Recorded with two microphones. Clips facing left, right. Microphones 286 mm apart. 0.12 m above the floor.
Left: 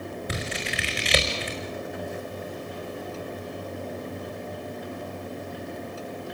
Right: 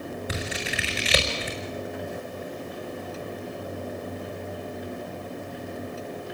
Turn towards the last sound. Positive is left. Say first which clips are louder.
# even
turn(degrees=-5)  # may be behind; listen again after turning